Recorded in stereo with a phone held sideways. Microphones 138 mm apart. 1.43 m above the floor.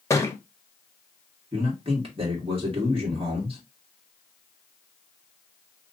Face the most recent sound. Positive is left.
turn(degrees=-45)  # may be behind; listen again after turning